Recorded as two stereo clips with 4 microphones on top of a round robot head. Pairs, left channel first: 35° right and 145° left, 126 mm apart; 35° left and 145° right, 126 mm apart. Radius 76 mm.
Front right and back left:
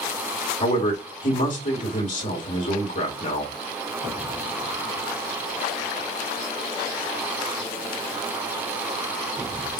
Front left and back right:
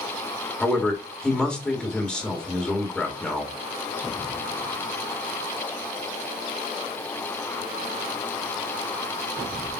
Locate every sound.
0.6 s a man speaking: 45° right, 1.9 m